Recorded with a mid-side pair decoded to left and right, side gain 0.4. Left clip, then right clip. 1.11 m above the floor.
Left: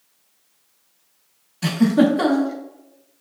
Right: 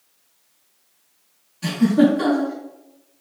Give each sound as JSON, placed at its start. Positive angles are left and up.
{"t": 1.6, "sound": "a giggle", "azimuth_deg": 60, "distance_m": 1.0}